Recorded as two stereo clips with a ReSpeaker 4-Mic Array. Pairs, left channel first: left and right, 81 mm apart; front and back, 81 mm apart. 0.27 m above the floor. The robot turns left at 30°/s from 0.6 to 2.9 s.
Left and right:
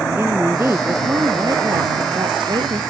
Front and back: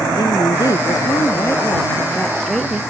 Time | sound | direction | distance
0.1 | a woman speaking | 30° right | ?